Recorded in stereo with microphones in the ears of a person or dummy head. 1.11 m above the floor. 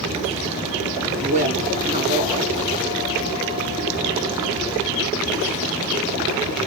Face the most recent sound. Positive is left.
turn(degrees=-40)  # may be behind; listen again after turning